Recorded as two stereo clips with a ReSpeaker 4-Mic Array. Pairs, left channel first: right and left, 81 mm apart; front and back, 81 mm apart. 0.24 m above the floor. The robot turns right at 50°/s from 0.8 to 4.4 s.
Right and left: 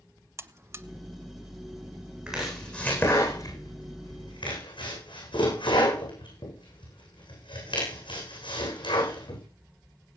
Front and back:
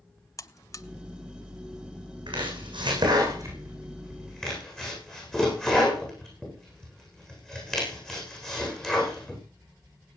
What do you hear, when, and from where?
0.4 s a buzzer: 40° left, 0.8 m; by 0.9 s 45° left, 0.8 m
2.3 s chopping: 170° left, 10 m; by 9.4 s 80° right, 10 m